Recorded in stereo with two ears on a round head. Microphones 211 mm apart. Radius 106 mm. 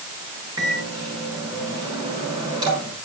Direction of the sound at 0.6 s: 20° right (ahead or behind).